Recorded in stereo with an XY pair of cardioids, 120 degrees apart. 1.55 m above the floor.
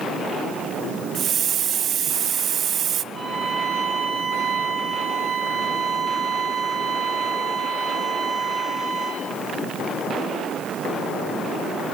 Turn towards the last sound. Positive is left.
turn(degrees=-35)